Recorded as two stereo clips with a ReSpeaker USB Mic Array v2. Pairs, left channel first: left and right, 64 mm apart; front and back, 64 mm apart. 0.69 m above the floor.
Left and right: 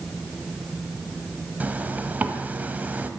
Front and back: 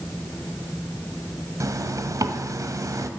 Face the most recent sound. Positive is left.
turn(degrees=-155)